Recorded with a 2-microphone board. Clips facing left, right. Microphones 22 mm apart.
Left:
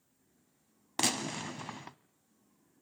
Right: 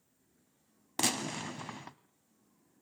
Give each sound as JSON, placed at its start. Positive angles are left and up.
{"t": 1.0, "sound": "a gunshot", "side_deg": 10, "distance_m": 0.7}